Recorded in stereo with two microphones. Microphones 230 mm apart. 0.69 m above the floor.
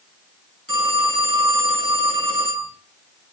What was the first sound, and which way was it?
A phone ringing, 80° left.